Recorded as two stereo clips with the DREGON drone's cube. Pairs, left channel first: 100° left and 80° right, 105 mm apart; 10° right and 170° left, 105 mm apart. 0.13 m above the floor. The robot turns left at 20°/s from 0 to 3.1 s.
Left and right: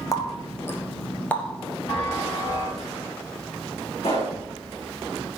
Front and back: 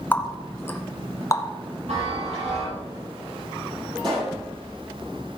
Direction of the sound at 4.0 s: 125° left.